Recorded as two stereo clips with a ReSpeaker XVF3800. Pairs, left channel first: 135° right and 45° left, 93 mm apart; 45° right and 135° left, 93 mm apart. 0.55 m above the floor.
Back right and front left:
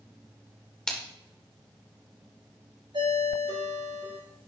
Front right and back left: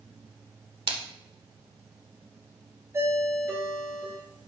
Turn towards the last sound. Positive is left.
turn(degrees=75)